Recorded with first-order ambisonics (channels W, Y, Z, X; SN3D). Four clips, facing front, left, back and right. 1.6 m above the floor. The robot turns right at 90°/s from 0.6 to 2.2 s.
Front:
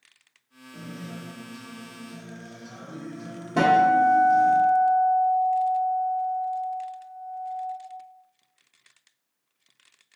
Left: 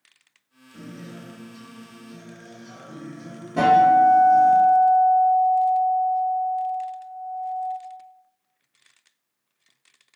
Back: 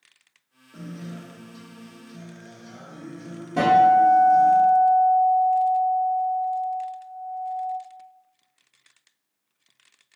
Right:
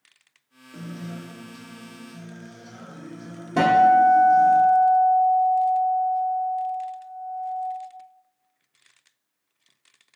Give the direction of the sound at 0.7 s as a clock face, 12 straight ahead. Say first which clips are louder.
Right 3 dB, back 1 dB; 3 o'clock.